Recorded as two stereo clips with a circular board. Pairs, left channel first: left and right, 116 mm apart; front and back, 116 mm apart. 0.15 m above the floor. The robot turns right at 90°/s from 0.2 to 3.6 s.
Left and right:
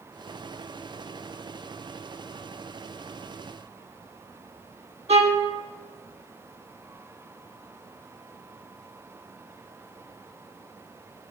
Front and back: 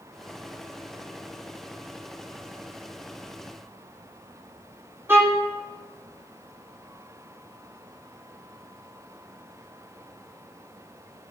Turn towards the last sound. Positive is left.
turn(degrees=-110)